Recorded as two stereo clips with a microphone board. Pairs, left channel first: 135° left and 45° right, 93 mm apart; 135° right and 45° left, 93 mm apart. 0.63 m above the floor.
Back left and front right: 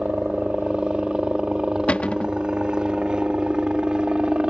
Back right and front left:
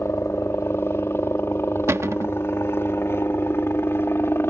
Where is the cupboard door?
70° left.